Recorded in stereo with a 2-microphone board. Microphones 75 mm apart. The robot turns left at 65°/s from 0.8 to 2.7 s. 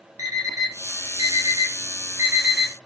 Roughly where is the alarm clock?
Right.